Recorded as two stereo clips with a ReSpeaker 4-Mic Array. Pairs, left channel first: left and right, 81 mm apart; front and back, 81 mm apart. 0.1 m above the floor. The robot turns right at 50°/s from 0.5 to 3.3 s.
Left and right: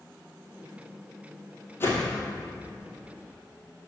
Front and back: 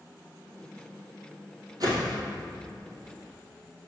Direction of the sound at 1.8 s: 150° left.